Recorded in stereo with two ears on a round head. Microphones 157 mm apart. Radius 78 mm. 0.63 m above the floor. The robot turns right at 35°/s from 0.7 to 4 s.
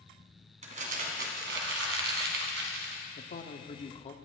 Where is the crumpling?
135° right, 2.5 m; by 3.0 s 55° right, 2.5 m.